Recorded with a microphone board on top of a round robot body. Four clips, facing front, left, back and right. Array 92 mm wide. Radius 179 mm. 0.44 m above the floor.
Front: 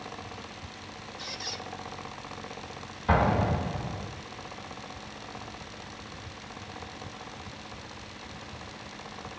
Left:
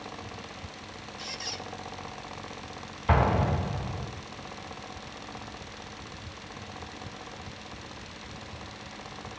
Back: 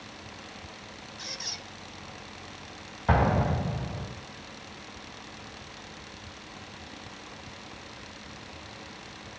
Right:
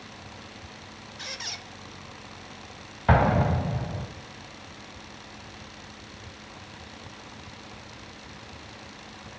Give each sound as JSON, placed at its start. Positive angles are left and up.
{"t": 1.2, "sound": "a squeak", "azimuth_deg": -100, "distance_m": 1.7}
{"t": 3.1, "sound": "an explosion", "azimuth_deg": -105, "distance_m": 4.0}